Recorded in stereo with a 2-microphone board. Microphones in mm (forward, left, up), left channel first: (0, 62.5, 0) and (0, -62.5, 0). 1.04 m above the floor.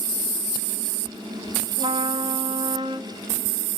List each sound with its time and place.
1.8 s a trumpet: 50° right (ahead or behind), 2 m